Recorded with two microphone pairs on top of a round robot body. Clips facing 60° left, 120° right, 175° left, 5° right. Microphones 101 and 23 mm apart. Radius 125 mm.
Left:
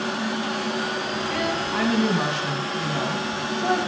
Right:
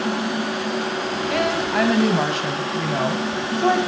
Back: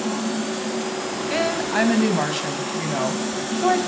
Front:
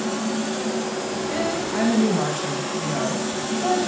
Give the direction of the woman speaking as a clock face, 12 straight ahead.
5 o'clock.